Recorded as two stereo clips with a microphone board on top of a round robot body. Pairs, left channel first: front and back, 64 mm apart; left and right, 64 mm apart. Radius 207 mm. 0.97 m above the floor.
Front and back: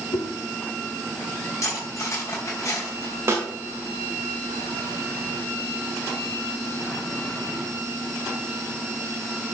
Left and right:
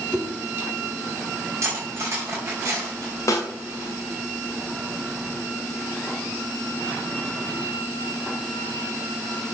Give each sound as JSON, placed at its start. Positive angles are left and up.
{"t": 0.1, "sound": "a whoosh", "azimuth_deg": 0, "distance_m": 1.1}
{"t": 1.6, "sound": "cutlery clinking", "azimuth_deg": -45, "distance_m": 4.0}
{"t": 3.3, "sound": "a snare drum", "azimuth_deg": 130, "distance_m": 1.7}